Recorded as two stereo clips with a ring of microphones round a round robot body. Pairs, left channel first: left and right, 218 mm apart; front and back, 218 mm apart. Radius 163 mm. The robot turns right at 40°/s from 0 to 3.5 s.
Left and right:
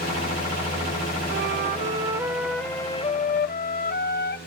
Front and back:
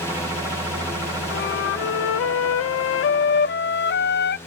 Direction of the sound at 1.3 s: 45° right.